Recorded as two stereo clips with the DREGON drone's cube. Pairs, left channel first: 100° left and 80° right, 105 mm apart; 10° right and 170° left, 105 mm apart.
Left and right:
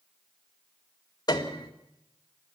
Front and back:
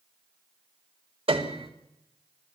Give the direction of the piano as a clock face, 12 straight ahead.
7 o'clock.